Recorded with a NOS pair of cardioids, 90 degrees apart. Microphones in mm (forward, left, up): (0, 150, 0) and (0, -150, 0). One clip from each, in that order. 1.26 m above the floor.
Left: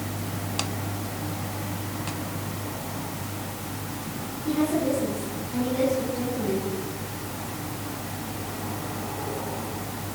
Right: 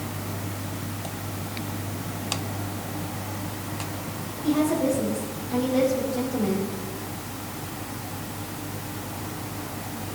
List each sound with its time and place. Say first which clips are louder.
4.4 s a woman speaking: right 2 dB; 70° right, 6 m